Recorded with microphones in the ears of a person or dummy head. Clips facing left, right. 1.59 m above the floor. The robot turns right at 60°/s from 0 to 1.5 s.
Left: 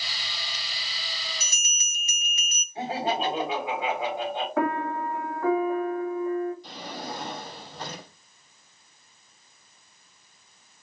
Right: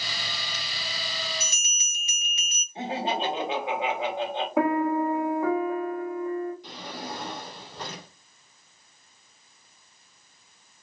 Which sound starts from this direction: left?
A bell, at 1.4 s.